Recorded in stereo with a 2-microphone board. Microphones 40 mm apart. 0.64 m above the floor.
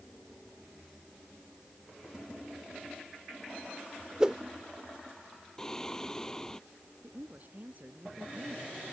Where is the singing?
15° left (ahead or behind).